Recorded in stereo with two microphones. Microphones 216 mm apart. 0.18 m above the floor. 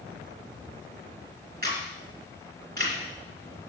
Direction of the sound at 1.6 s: 50° right (ahead or behind).